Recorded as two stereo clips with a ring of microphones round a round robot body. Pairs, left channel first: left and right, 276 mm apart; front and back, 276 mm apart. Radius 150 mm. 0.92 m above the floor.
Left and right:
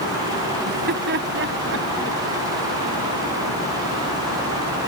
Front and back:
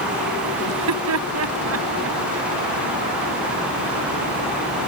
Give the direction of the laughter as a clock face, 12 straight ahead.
5 o'clock.